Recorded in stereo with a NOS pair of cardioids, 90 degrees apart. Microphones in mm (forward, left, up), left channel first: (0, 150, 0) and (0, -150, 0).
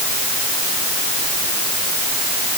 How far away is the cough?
No cough in this recording.